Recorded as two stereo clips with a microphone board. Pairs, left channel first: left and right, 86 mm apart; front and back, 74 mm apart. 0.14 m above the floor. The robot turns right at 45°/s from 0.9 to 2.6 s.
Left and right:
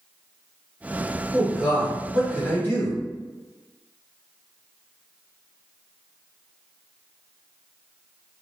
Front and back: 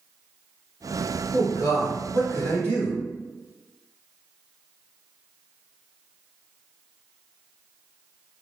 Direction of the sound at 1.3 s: 20° right.